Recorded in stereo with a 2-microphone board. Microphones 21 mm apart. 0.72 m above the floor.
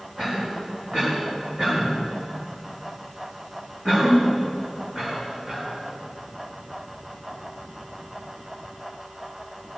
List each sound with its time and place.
0.2 s a cough: 45° right (ahead or behind), 7.5 m